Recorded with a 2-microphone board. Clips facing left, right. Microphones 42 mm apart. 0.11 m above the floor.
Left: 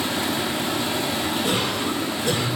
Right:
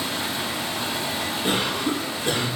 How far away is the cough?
About 1.4 m.